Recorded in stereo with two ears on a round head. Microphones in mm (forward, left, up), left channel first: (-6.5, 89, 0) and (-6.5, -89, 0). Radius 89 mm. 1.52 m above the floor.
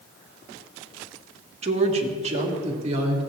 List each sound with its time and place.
1.6 s a woman speaking: 35° right (ahead or behind), 1.7 m